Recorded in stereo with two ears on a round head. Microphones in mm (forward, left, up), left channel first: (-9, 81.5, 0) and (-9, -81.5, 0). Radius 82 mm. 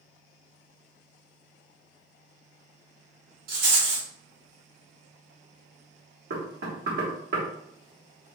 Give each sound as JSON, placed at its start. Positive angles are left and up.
{"t": 3.5, "sound": "a rattle", "side_deg": -60, "distance_m": 1.8}
{"t": 6.3, "sound": "knocking", "side_deg": -60, "distance_m": 1.8}